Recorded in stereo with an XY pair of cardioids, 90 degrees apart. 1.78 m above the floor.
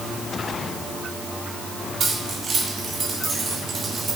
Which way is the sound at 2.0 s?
55° right.